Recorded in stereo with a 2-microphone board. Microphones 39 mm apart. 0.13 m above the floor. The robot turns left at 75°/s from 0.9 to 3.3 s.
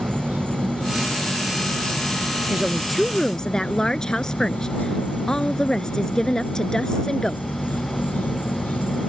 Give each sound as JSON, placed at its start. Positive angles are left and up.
{"t": 0.0, "sound": "an insect", "azimuth_deg": -50}
{"t": 2.5, "sound": "a woman speaking", "azimuth_deg": -140}